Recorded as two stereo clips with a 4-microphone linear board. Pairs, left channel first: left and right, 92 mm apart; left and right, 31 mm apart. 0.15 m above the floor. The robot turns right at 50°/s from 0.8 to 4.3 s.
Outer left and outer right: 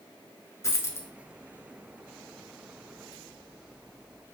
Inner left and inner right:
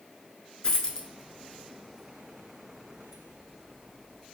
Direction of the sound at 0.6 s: 35° left (ahead or behind).